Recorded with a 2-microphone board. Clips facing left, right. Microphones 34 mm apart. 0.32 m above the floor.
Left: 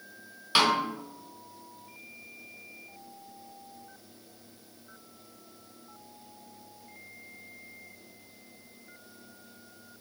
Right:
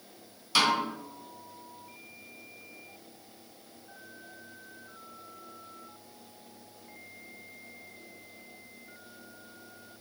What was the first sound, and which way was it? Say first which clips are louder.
A snare drum: left 1 dB; 30° left (ahead or behind).